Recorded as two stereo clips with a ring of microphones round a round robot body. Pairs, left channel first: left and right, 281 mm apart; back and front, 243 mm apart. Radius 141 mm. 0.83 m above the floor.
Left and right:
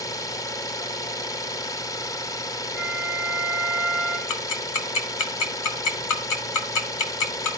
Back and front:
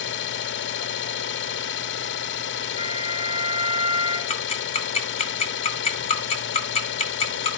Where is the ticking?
115° left, 2.5 m.